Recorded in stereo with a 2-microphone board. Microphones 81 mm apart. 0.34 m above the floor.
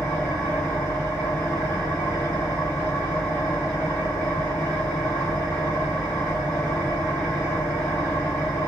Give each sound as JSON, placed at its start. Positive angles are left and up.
{"t": 0.0, "sound": "an engine running", "side_deg": 15, "distance_m": 1.7}